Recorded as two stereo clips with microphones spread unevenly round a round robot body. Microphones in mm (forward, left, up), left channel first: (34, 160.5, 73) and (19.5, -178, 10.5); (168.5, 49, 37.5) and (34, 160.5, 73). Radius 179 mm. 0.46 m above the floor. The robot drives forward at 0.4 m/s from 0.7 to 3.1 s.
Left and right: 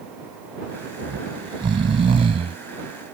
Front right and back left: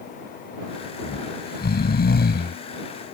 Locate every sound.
1.0 s snoring: 20° right